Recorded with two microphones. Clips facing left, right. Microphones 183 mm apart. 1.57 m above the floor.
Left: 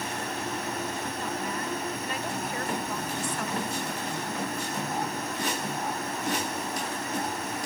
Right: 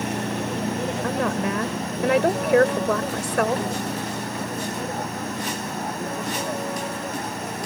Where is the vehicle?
70° right (ahead or behind); by 7.7 s 60° right (ahead or behind).